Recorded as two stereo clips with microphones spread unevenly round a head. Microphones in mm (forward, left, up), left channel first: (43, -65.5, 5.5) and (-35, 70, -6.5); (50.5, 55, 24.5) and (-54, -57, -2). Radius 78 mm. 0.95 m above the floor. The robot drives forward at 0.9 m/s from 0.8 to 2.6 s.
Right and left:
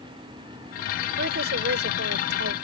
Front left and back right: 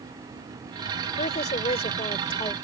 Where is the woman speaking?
95° left; by 2.5 s 110° left.